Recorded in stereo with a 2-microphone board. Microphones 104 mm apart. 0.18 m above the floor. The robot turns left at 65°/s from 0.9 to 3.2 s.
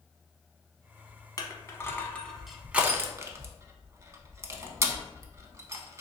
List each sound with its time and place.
1.4 s crushing: 35° left (ahead or behind), 0.5 m; by 6.0 s 30° right (ahead or behind), 0.5 m